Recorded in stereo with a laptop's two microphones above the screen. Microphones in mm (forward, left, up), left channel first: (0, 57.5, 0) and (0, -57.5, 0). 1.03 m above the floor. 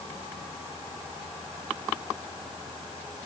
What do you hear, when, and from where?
Only background noise.